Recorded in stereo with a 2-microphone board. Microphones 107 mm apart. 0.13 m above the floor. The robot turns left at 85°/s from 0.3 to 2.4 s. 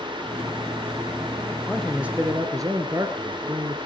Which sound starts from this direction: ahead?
A man speaking, at 1.7 s.